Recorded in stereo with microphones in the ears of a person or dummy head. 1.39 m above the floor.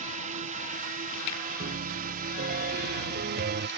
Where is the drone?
40° right (ahead or behind); by 3.8 s 45° right (ahead or behind).